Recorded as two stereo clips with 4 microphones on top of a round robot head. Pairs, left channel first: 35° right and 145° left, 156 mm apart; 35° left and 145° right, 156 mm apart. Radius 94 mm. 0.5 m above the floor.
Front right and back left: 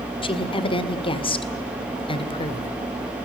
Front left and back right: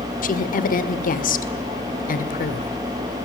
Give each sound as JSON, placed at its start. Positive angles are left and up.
{"t": 0.2, "sound": "a woman speaking", "azimuth_deg": 20, "distance_m": 2.0}